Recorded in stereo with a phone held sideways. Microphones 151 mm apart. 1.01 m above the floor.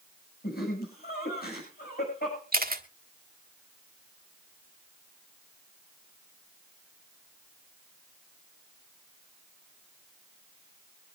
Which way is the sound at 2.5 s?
75° right (ahead or behind).